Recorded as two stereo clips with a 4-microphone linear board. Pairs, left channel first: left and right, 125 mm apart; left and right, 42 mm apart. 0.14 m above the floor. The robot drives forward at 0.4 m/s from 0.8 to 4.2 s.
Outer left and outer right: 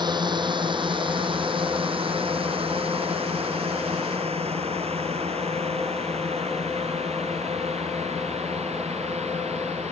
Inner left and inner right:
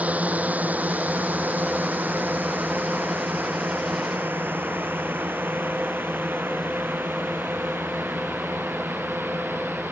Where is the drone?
35° right (ahead or behind); by 9.9 s 60° right (ahead or behind).